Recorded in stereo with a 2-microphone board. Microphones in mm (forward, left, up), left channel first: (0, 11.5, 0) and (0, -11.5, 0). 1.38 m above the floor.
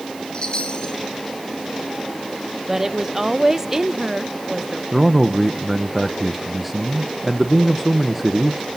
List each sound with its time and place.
0.3 s a chime: 40° left (ahead or behind), 2.5 m
2.7 s a woman speaking: 20° right (ahead or behind), 0.8 m
4.9 s a man speaking: 5° right (ahead or behind), 0.7 m